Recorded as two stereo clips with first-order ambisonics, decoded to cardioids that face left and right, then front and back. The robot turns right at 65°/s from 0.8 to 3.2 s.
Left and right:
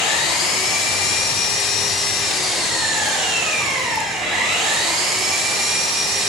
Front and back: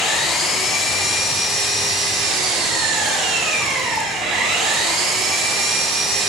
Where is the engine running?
75° left, 3 m; by 6.3 s 130° right, 3 m.